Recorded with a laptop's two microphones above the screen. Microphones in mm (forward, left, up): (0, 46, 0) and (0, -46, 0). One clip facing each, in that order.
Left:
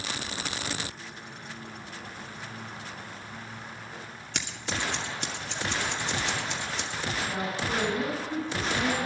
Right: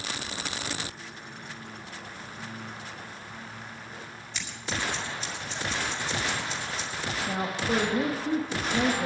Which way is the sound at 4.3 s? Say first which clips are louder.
Even; 70° left (ahead or behind).